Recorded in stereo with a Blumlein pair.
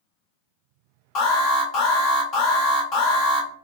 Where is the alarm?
40° left, 1.4 m.